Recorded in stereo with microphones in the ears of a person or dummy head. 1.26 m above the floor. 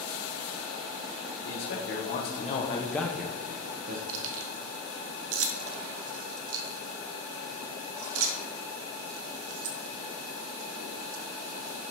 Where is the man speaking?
70° left (ahead or behind), 1.6 m; by 4.0 s 40° right (ahead or behind), 1.2 m.